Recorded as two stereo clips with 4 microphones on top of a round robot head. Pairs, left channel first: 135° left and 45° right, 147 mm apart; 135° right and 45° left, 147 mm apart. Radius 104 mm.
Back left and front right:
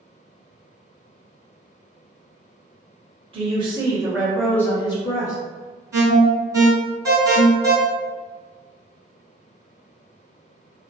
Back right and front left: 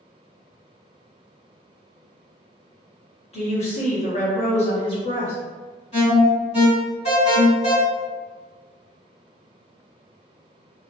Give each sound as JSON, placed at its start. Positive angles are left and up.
{"t": 3.3, "sound": "a woman speaking", "azimuth_deg": -90, "distance_m": 1.4}
{"t": 5.9, "sound": "an alarm", "azimuth_deg": -110, "distance_m": 1.7}